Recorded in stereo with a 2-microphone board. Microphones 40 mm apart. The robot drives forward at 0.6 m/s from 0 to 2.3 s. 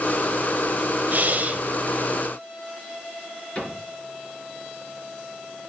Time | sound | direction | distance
1.1 | breathing | 50° right (ahead or behind) | 0.6 m
3.5 | a cupboard door | 35° left (ahead or behind) | 4 m